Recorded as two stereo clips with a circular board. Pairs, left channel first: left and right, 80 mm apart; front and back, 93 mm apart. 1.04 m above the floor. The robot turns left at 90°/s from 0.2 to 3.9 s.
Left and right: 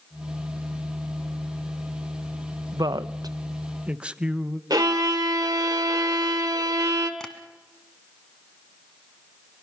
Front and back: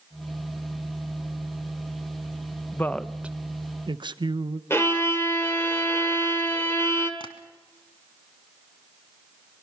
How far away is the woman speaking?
About 0.7 m.